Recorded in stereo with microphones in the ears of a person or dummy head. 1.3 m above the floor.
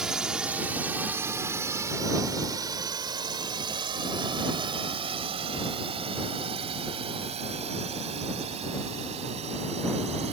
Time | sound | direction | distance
0.0 | a drone | centre (ahead or behind) | ?